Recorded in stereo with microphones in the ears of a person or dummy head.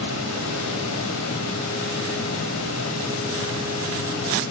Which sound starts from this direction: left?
A fan, at 0.0 s.